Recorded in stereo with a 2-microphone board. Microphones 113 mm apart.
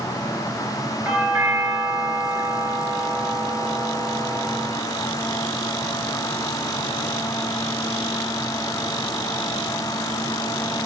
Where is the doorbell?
15° right (ahead or behind), 3.5 m.